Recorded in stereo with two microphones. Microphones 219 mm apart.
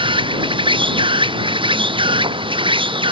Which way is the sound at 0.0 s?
20° right (ahead or behind).